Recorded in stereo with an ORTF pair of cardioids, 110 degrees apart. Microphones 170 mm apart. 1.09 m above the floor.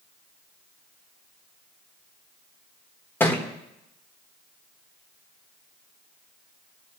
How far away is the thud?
About 1.5 m.